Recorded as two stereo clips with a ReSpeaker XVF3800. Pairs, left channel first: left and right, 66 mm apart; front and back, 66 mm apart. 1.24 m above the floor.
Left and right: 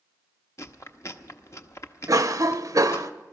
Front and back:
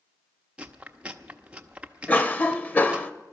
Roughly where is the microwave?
I don't hear a microwave.